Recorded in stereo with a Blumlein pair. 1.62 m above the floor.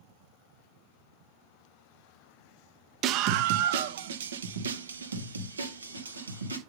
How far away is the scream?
About 0.6 m.